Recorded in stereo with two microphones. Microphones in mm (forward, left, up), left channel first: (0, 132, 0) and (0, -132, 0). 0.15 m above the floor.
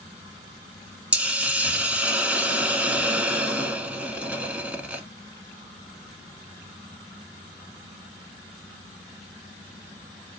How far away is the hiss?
About 0.6 m.